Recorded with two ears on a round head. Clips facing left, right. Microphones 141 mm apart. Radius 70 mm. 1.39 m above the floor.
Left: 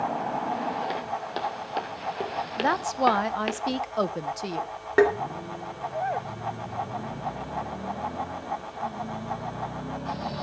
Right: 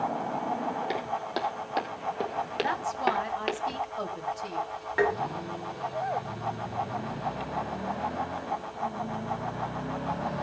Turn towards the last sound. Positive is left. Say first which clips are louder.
# left 6 dB
turn(degrees=65)  # may be behind; listen again after turning